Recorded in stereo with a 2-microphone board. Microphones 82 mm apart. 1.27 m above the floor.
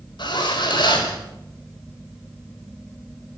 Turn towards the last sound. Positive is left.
turn(degrees=80)